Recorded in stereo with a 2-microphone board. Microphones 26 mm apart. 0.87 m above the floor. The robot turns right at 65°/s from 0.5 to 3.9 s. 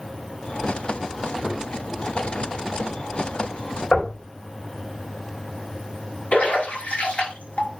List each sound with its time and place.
1.4 s a thud: 60° right (ahead or behind), 6 m; by 1.6 s 50° right (ahead or behind), 6 m
3.9 s knocking: 80° left, 4 m
6.3 s a splash: 80° left, 5 m